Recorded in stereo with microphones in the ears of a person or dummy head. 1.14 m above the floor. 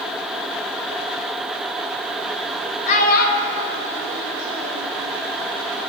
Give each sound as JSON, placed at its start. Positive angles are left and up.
{"t": 2.9, "sound": "a child speaking", "side_deg": 50, "distance_m": 1.4}